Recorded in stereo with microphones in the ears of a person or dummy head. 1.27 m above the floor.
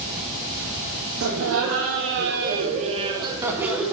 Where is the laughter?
80° right, 1.3 m; by 3.9 s 5° right (ahead or behind), 1.4 m.